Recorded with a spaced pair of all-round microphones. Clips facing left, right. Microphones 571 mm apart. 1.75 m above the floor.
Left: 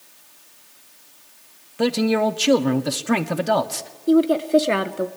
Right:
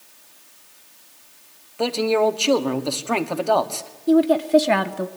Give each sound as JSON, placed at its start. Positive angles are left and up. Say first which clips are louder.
{"t": 1.8, "sound": "a man speaking", "louder": "even", "side_deg": 40, "distance_m": 1.3}
{"t": 4.1, "sound": "a woman speaking", "louder": "even", "side_deg": -20, "distance_m": 1.1}